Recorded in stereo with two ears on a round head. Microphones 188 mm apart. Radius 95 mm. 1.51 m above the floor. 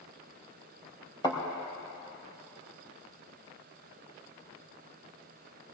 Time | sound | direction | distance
1.2 | a thud | 20° left (ahead or behind) | 4 m